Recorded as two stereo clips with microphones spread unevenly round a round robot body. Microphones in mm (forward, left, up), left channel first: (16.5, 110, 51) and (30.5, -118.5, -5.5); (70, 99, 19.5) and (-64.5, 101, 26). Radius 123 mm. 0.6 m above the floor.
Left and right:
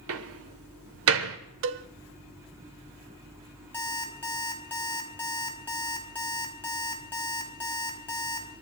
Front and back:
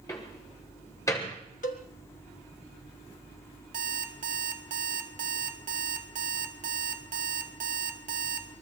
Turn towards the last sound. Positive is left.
turn(degrees=175)